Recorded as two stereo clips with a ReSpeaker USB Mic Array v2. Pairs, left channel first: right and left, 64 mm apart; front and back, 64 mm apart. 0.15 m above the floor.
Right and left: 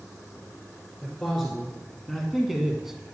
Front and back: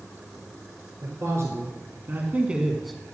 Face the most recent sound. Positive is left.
turn(degrees=25)